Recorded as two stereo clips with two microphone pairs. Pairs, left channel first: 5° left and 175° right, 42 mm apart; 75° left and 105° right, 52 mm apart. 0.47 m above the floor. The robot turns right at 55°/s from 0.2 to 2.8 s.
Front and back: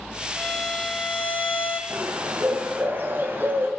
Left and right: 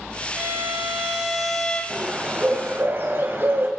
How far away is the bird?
About 1.8 m.